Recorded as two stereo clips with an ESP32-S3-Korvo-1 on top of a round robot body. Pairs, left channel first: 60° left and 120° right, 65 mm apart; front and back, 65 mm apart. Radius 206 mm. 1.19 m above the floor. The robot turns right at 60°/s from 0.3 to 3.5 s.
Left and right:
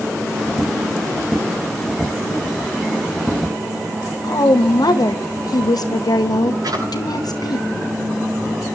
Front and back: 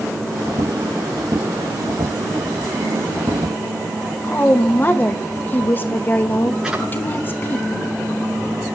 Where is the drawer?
100° right, 9 m.